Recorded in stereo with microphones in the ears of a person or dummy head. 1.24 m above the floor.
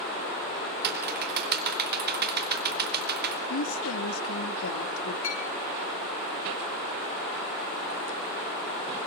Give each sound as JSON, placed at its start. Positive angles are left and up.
{"t": 0.8, "sound": "typing on a keyboard", "side_deg": -50, "distance_m": 3.0}
{"t": 3.5, "sound": "a woman speaking", "side_deg": 80, "distance_m": 2.0}
{"t": 5.2, "sound": "a clink", "side_deg": 70, "distance_m": 7.5}